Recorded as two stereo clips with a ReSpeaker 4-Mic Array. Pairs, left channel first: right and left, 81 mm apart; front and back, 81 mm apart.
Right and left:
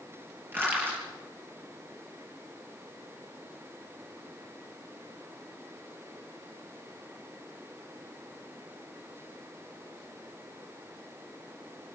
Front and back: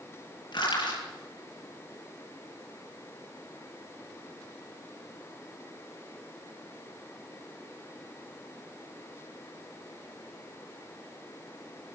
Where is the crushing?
25° left, 9 m.